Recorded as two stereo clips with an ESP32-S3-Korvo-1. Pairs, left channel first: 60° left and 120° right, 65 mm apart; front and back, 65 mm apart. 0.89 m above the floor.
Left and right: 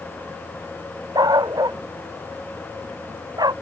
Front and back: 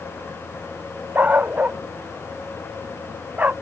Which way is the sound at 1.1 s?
115° right.